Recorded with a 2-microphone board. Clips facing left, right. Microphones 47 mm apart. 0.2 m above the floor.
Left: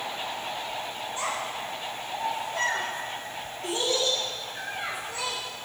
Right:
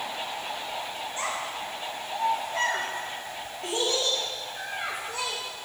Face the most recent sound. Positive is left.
turn(degrees=-50)  # may be behind; listen again after turning